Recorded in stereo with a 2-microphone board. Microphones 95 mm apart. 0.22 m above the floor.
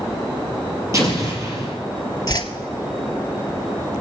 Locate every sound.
0.9 s an explosion: 35° right (ahead or behind), 3.5 m
2.3 s a whoosh: 40° left (ahead or behind), 1.1 m